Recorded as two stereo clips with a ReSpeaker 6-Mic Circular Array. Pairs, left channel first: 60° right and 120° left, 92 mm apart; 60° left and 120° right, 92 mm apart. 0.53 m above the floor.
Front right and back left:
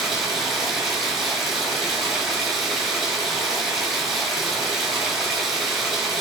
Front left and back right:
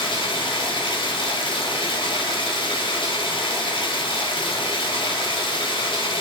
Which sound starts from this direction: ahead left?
Running water, at 0.0 s.